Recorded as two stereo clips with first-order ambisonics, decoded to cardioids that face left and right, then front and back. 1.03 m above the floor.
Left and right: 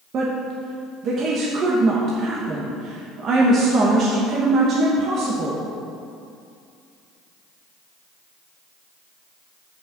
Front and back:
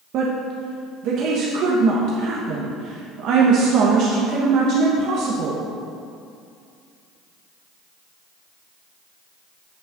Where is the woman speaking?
145° right, 1.1 m.